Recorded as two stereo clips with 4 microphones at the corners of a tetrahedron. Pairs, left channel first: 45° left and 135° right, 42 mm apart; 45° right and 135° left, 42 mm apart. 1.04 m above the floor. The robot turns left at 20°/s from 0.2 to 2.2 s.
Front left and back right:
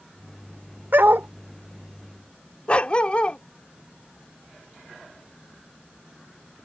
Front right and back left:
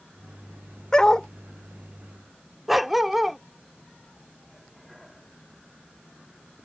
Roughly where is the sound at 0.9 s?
Behind right.